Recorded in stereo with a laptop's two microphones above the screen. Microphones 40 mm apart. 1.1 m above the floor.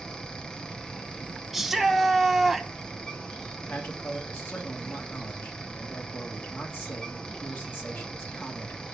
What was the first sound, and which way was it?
A fan, 20° left (ahead or behind).